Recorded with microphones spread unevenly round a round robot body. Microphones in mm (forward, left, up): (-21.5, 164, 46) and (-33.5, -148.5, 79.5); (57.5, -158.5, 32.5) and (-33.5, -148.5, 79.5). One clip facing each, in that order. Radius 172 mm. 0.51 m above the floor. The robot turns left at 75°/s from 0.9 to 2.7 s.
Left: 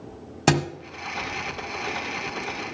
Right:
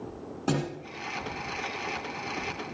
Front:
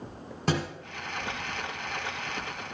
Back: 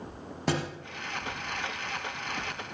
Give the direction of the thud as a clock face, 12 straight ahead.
9 o'clock.